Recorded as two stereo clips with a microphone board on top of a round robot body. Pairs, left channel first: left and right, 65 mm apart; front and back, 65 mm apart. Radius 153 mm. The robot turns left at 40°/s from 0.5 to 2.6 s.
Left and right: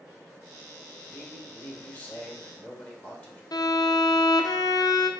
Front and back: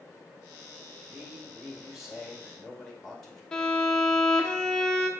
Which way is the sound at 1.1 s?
140° left.